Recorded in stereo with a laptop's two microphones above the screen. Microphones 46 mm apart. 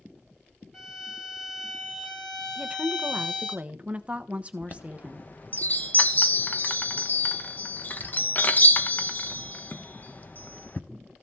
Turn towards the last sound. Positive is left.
turn(degrees=40)  # may be behind; listen again after turning